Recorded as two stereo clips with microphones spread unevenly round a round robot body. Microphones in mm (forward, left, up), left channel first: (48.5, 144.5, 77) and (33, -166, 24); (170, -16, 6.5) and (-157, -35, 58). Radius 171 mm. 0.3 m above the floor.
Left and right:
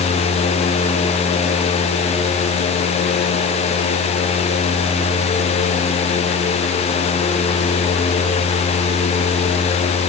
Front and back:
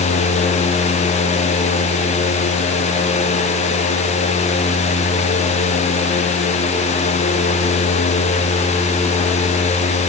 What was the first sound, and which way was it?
Only background noise.